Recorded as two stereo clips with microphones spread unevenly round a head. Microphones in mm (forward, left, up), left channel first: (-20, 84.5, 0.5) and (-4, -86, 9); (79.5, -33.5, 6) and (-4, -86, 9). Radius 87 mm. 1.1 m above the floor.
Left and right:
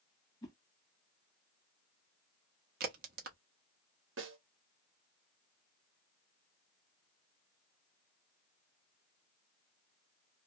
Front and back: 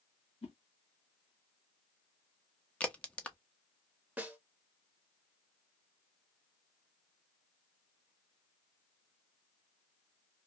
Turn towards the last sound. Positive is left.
turn(degrees=-75)